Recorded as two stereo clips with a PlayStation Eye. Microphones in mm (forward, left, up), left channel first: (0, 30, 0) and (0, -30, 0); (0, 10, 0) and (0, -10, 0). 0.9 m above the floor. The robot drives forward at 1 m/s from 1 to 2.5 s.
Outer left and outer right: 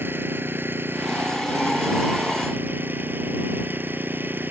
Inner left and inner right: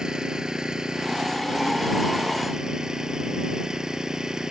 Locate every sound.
0.0 s an engine running: 35° right (ahead or behind); by 4.5 s 30° right (ahead or behind)